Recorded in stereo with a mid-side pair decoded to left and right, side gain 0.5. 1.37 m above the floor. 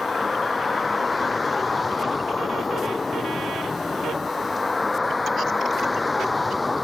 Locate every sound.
0.0 s a vehicle: 25° left; by 6.8 s 20° left